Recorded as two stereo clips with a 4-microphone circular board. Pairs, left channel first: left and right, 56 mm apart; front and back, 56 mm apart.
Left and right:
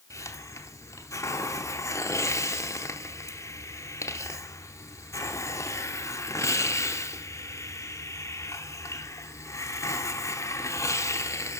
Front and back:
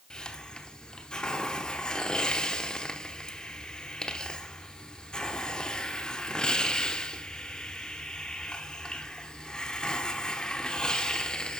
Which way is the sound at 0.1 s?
75° left.